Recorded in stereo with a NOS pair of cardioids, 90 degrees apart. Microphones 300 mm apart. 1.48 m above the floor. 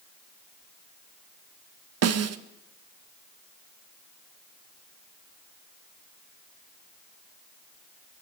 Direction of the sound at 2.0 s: 55° right.